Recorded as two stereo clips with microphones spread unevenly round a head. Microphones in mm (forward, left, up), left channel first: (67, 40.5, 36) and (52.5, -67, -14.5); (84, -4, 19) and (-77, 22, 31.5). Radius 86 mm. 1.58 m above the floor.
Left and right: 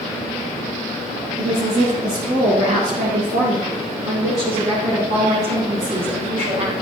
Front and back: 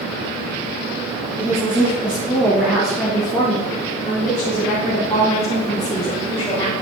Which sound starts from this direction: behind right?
A woman speaking, at 1.4 s.